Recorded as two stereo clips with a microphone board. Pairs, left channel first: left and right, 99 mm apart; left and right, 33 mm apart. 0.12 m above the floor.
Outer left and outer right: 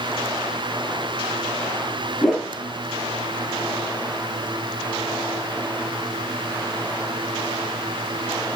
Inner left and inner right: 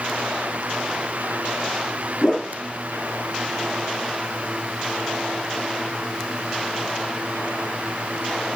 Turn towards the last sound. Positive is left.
turn(degrees=0)  # may be behind; listen again after turning